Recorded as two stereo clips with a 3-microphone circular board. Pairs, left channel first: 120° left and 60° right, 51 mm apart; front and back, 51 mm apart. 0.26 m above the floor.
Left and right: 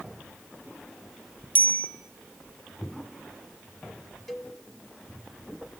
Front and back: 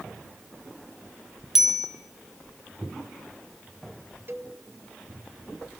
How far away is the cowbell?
About 1.7 m.